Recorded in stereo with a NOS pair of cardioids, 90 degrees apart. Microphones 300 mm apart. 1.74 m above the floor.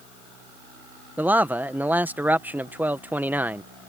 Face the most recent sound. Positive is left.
turn(degrees=-5)